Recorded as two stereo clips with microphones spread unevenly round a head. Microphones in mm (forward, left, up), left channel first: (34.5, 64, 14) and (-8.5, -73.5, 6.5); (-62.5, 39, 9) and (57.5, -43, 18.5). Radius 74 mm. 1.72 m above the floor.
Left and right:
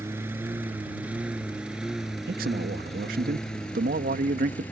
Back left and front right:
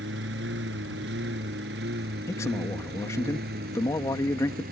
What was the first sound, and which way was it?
A lawn mower, 35° right.